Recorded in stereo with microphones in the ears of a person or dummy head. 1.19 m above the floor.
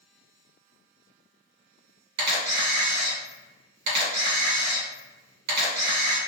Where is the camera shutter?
55° right (ahead or behind), 1.6 m.